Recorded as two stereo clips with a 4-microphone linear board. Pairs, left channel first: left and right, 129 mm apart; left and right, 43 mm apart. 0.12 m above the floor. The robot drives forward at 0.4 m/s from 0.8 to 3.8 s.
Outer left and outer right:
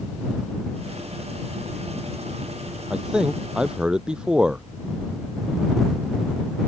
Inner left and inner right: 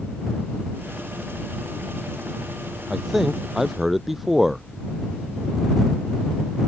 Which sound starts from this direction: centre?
A man speaking, at 2.9 s.